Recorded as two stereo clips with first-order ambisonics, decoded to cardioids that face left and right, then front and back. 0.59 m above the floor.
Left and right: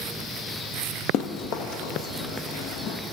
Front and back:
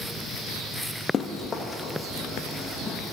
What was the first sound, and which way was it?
Running footsteps, 65° left.